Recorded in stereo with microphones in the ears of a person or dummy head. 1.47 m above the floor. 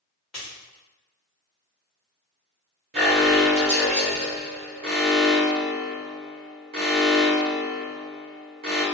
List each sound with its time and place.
0.3 s a dropped coin: centre (ahead or behind), 1.4 m
2.9 s an alarm: 40° right (ahead or behind), 1.3 m